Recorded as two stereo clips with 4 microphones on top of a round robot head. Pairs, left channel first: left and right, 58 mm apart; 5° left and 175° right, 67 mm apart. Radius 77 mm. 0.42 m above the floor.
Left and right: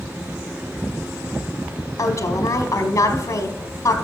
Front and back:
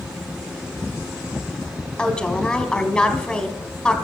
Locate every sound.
2.0 s a woman speaking: 75° left, 1.6 m